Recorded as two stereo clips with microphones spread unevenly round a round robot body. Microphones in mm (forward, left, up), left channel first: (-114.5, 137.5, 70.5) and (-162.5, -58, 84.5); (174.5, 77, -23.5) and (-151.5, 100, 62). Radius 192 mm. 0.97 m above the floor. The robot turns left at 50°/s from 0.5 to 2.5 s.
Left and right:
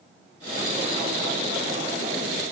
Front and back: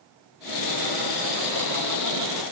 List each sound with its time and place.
Only background noise.